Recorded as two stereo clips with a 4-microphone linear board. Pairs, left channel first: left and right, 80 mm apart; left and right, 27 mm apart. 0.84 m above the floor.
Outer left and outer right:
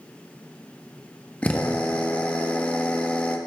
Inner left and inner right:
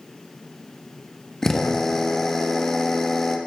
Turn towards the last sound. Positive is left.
turn(degrees=15)  # may be behind; listen again after turning